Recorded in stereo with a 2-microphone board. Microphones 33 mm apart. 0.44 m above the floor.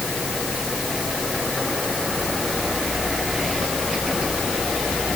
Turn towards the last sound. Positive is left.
No sound to turn to.